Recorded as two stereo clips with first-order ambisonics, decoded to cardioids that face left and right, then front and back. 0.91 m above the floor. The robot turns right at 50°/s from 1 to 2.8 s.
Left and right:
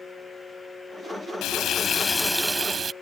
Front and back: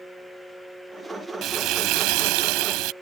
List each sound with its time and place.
1.4 s frying: 130° left; by 2.9 s 160° right